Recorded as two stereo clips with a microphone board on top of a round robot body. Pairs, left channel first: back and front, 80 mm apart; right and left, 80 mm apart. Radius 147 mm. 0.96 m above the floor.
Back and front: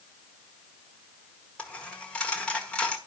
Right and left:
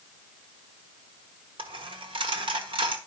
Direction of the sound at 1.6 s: 105° left.